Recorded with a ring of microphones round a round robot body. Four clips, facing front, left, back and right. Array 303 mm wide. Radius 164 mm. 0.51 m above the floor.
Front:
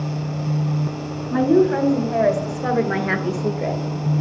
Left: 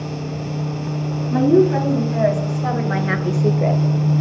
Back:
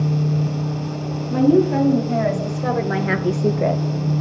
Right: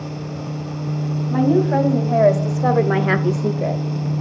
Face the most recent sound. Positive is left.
turn(degrees=150)